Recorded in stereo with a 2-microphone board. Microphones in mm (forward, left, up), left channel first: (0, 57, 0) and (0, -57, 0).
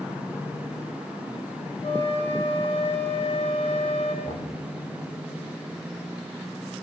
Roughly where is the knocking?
Left.